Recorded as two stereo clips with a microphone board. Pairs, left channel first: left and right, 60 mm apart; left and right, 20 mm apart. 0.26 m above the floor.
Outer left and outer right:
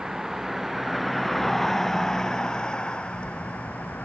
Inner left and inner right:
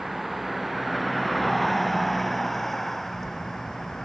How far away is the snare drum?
I don't hear a snare drum.